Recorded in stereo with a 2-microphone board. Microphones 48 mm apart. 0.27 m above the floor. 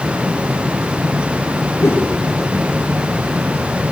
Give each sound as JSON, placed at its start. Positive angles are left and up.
{"t": 1.8, "sound": "a whoosh", "side_deg": 75, "distance_m": 5.5}